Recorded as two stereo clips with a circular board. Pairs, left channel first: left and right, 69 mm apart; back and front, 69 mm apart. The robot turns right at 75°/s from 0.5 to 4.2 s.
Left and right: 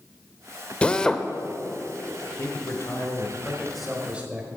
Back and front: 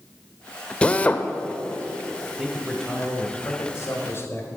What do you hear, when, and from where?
0.8 s a drill: 135° left, 0.6 m; by 1.3 s 170° left, 0.6 m
2.4 s a man speaking: 75° left, 1.3 m; by 4.5 s 150° right, 1.3 m